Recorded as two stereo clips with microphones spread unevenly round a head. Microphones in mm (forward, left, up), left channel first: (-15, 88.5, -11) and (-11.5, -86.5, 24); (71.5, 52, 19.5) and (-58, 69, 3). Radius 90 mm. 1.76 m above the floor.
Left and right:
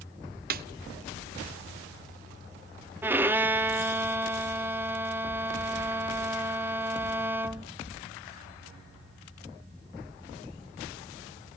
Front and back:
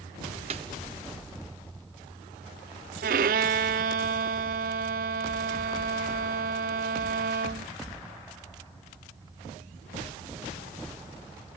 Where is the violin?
160° right, 0.5 m.